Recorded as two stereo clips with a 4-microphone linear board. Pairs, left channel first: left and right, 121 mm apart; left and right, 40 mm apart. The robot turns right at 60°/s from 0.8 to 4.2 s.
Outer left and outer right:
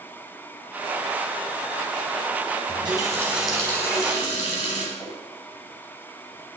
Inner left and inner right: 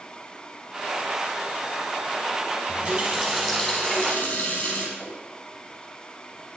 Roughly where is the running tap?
Ahead right.